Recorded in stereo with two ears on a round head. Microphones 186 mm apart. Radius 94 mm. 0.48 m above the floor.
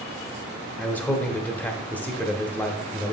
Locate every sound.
0.8 s a man speaking: 10° left (ahead or behind), 0.8 m